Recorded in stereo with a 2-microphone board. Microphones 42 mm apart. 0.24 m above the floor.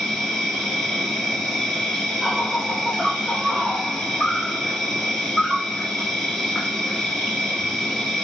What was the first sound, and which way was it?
An insect, 5° left (ahead or behind).